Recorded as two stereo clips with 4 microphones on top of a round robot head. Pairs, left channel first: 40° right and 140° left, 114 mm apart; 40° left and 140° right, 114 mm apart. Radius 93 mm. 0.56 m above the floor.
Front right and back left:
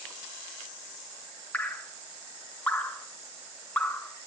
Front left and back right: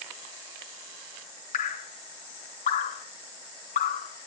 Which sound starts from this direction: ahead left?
Dripping, at 1.5 s.